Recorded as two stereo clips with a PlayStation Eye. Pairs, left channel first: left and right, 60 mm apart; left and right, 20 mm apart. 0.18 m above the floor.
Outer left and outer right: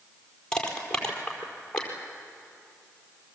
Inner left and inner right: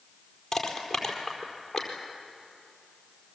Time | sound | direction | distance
0.5 | crushing | 15° left (ahead or behind) | 4.5 m